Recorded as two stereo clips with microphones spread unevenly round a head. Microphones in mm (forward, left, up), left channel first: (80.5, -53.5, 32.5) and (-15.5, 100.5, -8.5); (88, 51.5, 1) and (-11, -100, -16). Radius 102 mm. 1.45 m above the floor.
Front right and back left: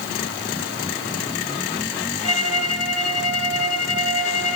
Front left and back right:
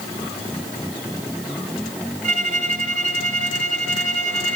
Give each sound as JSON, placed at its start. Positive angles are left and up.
{"t": 2.2, "sound": "a violin", "azimuth_deg": -75, "distance_m": 2.5}